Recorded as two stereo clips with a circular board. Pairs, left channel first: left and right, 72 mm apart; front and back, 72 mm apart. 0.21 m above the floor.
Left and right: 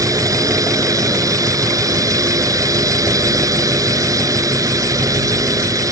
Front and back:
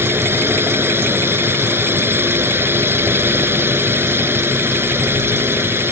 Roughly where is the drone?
Behind right.